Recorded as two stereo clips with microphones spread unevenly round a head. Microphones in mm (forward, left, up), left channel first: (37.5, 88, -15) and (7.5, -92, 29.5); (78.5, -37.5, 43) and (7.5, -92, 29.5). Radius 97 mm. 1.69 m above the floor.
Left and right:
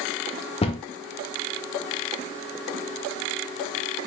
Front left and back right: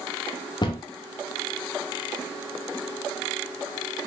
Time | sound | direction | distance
0.6 | a cupboard door | 15° left | 0.7 m